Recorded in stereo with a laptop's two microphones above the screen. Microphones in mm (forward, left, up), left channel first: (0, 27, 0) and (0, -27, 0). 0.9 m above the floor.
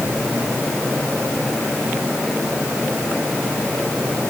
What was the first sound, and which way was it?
Only background noise.